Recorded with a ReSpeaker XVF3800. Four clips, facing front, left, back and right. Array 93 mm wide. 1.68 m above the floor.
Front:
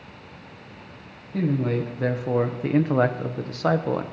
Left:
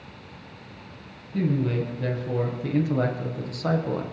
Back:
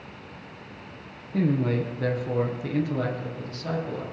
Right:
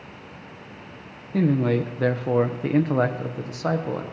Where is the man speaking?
95° right, 1.0 m; by 4.0 s 10° right, 1.2 m.